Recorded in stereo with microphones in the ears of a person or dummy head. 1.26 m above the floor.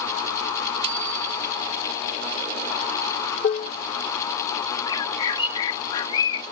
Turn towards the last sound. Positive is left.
turn(degrees=30)  # may be behind; listen again after turning